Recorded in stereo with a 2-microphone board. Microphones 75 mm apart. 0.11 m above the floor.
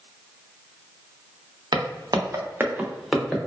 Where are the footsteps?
75° right (ahead or behind), 0.9 m; by 3.4 s 5° left (ahead or behind), 1.1 m.